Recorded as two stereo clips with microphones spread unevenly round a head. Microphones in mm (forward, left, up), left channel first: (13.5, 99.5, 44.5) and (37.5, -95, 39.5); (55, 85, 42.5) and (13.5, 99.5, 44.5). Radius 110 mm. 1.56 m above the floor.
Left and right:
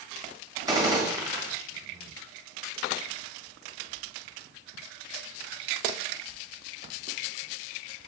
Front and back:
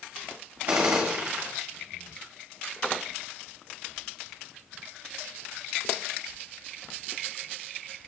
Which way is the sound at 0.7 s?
155° right.